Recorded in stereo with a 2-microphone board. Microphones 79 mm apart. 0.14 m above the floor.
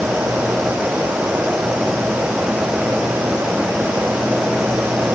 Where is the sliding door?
No sliding door in this recording.